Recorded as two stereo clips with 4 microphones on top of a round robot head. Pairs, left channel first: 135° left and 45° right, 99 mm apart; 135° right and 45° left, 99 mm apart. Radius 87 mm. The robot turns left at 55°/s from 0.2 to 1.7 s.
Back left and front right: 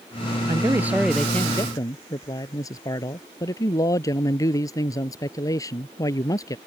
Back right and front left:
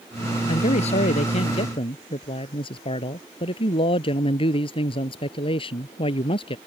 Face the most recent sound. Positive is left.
turn(degrees=-170)